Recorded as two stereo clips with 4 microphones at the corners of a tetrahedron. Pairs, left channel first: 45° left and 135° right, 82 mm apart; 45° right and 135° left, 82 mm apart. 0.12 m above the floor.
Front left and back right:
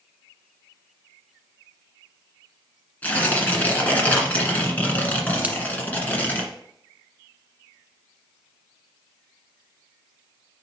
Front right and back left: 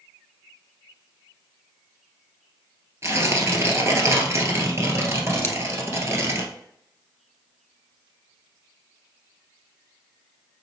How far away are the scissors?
About 1.2 m.